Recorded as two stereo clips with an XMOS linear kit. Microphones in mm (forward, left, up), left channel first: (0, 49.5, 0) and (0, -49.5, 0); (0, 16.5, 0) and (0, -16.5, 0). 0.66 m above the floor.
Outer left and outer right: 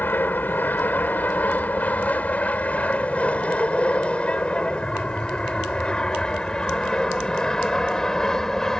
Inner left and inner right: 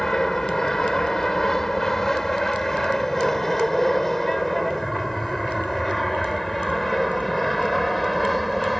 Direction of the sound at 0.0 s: 15° left (ahead or behind).